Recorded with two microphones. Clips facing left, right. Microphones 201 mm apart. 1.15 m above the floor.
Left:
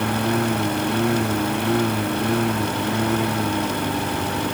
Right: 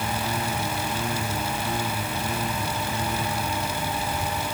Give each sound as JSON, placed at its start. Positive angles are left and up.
{"t": 0.0, "sound": "a lawn mower", "side_deg": 65}